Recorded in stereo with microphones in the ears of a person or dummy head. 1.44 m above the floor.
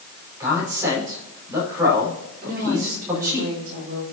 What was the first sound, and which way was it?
A man speaking, 15° right (ahead or behind).